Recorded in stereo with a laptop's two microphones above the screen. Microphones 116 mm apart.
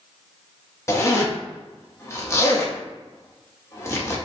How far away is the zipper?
About 0.7 m.